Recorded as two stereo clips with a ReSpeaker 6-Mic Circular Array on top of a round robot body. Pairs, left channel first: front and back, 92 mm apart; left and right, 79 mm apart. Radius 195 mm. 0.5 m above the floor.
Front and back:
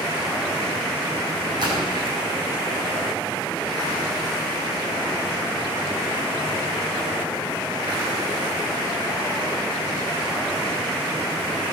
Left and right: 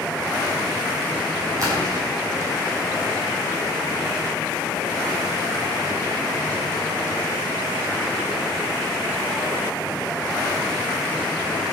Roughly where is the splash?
Behind right.